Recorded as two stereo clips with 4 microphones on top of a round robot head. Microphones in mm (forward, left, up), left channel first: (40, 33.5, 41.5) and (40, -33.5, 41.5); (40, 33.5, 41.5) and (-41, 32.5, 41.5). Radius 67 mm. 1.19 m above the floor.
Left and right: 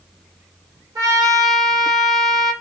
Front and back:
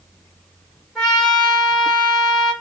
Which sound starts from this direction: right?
A trumpet, at 0.9 s.